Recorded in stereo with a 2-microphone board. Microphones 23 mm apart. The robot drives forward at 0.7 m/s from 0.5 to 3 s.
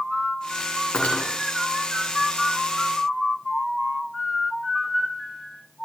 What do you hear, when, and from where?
0.9 s cutlery clinking: 70° left (ahead or behind), 2.5 m